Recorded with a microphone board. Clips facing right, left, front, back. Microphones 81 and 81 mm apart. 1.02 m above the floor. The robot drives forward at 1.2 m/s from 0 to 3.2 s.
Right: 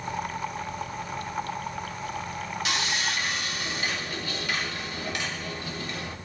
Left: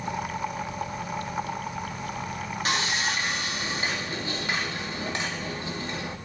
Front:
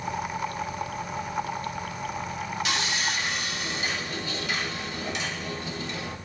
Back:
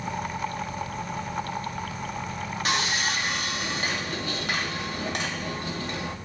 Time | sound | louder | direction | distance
2.6 | sawing | left 3 dB, back 5 dB | 135° left | 1.7 m